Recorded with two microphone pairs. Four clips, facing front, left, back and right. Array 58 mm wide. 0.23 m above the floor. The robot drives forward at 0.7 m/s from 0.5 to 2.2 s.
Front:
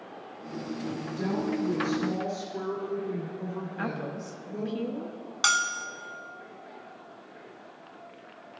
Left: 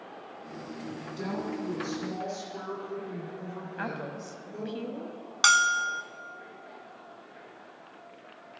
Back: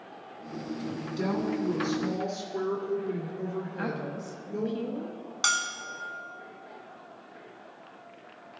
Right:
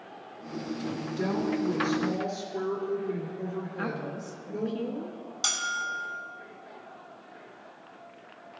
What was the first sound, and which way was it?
A woman speaking, straight behind.